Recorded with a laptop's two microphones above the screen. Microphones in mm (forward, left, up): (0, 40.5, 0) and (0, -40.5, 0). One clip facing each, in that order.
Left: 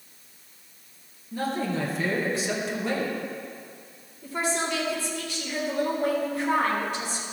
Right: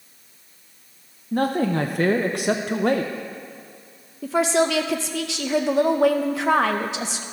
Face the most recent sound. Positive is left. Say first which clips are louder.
# right 9 dB
turn(degrees=-75)  # may be behind; listen again after turning